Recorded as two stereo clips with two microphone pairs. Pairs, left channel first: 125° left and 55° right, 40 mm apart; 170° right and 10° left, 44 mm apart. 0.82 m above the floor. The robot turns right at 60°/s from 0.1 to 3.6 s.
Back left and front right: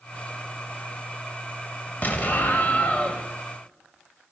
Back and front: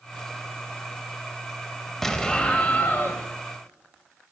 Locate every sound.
2.0 s an explosion: 105° left, 0.7 m; by 3.2 s straight behind, 0.7 m